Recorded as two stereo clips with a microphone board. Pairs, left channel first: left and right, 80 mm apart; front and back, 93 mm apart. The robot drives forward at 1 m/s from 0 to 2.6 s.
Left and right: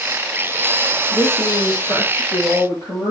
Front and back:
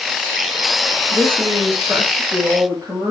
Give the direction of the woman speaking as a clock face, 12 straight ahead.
8 o'clock.